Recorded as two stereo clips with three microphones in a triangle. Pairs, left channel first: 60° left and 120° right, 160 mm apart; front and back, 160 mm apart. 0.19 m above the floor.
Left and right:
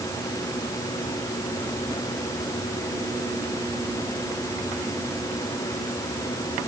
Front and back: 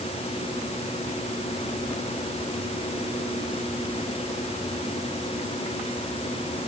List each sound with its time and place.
Only background noise.